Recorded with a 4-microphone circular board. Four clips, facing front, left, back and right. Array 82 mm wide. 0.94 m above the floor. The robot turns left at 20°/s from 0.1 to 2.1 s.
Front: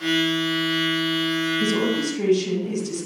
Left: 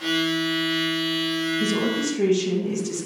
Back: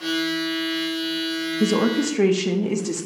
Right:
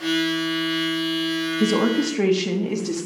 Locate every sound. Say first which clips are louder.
1.6 s a woman speaking: right 7 dB, back 6 dB; 140° right, 0.8 m; by 3.1 s 150° right, 0.8 m